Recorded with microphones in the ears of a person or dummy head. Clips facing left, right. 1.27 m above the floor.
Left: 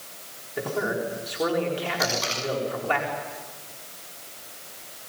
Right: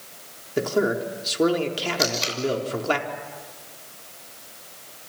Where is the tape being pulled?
45° right (ahead or behind), 6 m.